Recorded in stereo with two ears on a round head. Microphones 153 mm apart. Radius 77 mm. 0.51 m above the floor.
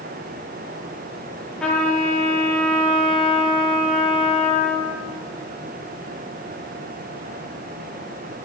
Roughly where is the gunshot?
No gunshot in this recording.